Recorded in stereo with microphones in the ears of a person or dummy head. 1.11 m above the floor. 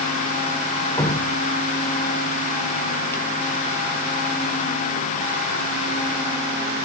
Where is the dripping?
15° left (ahead or behind), 0.5 m.